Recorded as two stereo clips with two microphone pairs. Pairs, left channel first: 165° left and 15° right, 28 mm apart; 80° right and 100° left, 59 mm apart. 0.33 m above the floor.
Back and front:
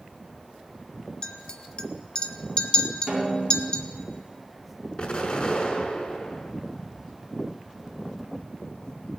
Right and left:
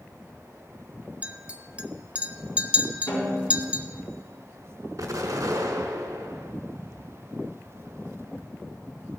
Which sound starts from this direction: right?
A snare drum, at 3.1 s.